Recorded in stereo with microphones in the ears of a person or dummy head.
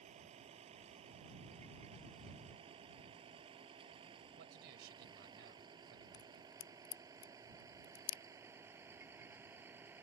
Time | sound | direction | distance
0.0 | a vehicle | 35° right (ahead or behind) | ?
4.4 | a man speaking | 55° right (ahead or behind) | ?
6.1 | a crack | 75° left (ahead or behind) | ?